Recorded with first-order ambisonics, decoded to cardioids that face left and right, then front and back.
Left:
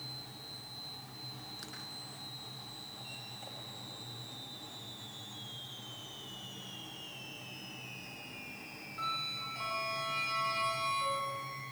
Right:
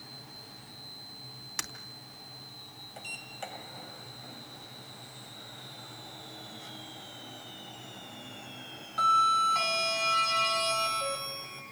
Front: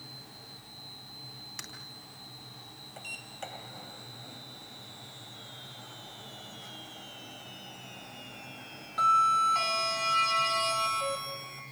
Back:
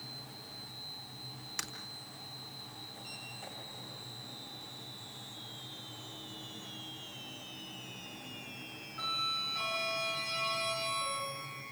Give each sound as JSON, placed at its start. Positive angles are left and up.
{"t": 1.6, "sound": "breaking glass", "azimuth_deg": -100, "distance_m": 3.5}
{"t": 3.0, "sound": "a sliding door", "azimuth_deg": -45, "distance_m": 2.5}